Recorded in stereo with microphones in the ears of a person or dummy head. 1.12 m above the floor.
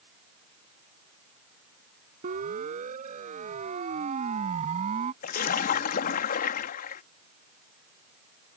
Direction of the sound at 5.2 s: 60° left (ahead or behind).